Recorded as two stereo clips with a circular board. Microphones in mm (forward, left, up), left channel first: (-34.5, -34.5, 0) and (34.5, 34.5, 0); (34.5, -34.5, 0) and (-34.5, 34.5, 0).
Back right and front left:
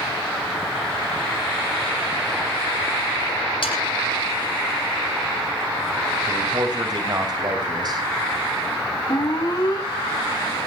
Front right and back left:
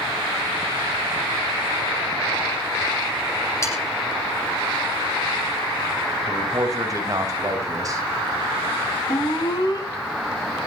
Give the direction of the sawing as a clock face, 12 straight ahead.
3 o'clock.